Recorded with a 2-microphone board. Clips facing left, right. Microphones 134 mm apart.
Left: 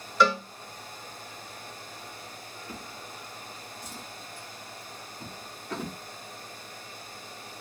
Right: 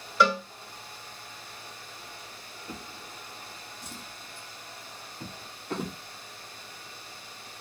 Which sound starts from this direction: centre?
A cowbell, at 0.2 s.